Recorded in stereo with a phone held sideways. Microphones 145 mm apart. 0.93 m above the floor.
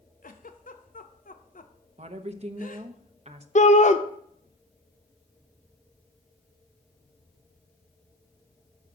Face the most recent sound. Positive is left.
turn(degrees=55)  # may be behind; listen again after turning